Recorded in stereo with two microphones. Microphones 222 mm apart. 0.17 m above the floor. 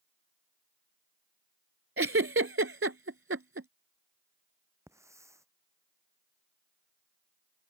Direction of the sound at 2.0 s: 75° right (ahead or behind).